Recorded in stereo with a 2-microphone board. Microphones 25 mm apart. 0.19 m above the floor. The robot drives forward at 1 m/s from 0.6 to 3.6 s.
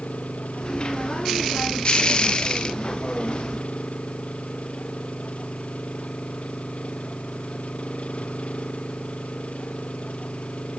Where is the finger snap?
I don't hear a finger snap.